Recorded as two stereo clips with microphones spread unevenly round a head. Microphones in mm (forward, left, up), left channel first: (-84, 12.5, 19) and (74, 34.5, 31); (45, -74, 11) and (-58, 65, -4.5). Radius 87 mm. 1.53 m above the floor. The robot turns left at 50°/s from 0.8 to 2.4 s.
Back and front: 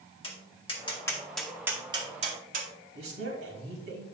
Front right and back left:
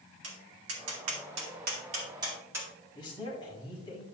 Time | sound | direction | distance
0.2 | tapping | 130° left | 2.0 m
2.9 | a man speaking | 15° left | 4.5 m